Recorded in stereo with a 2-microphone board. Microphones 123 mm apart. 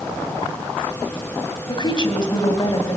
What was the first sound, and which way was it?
A woman speaking, 40° left (ahead or behind).